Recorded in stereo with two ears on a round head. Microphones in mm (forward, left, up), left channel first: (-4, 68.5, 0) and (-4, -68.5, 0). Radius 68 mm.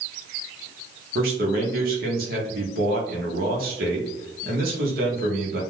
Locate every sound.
1.1 s a man speaking: 65° right (ahead or behind), 0.8 m